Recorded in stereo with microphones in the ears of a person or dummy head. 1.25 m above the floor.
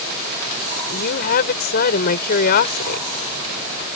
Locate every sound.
0.9 s a woman speaking: 50° left (ahead or behind)